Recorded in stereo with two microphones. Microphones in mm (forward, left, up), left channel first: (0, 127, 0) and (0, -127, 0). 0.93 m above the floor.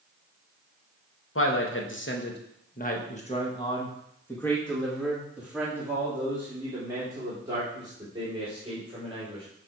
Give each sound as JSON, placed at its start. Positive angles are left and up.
{"t": 1.4, "sound": "a man speaking", "side_deg": 55, "distance_m": 1.4}